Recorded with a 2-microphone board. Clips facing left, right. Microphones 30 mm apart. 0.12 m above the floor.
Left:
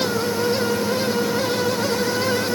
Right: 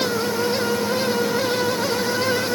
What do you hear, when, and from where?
Only background noise.